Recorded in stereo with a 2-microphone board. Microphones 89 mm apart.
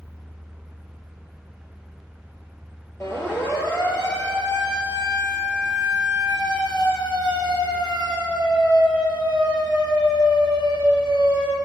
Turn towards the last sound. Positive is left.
turn(degrees=65)  # may be behind; listen again after turning